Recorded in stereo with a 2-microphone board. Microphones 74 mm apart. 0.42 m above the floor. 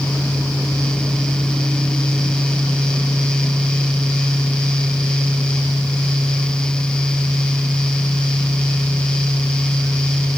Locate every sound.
Only background noise.